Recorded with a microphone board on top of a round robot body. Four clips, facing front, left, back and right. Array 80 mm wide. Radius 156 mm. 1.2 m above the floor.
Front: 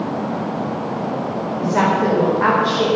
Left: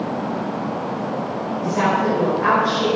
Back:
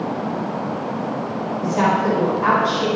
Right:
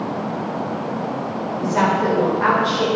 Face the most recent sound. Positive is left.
turn(degrees=-25)